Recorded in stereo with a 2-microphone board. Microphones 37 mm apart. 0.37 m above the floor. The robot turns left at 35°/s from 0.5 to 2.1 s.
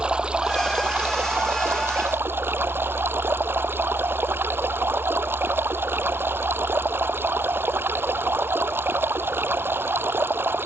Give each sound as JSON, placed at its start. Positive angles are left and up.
{"t": 0.0, "sound": "running water", "azimuth_deg": -25}